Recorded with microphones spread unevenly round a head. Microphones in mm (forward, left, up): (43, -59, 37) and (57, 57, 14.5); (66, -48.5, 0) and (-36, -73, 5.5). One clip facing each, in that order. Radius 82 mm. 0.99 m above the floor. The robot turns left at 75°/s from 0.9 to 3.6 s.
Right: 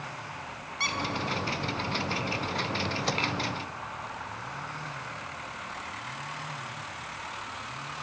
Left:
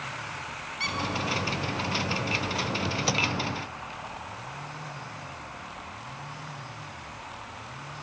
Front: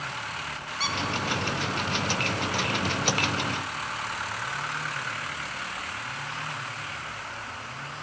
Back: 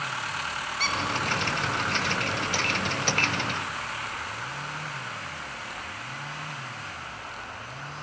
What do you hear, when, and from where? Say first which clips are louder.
0.8 s a squeak: right 1 dB, even; 65° right, 1.7 m; by 1.0 s 70° right, 1.7 m